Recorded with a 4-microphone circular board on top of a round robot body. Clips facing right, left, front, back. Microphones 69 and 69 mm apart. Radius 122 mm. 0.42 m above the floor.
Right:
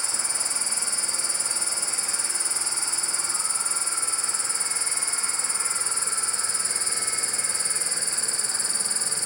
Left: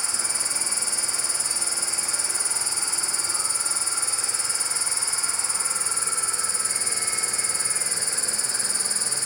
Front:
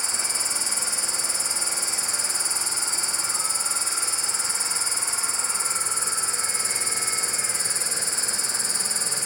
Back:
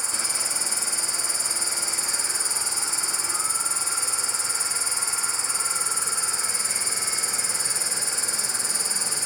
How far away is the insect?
About 1.1 m.